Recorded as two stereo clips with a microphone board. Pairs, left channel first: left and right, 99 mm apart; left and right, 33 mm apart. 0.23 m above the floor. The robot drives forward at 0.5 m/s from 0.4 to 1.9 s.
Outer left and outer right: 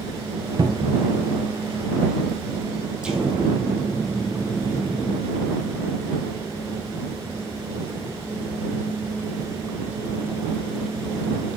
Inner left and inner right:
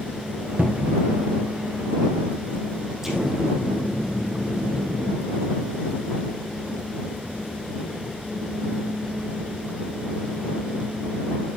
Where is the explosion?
10° right (ahead or behind), 3.5 m.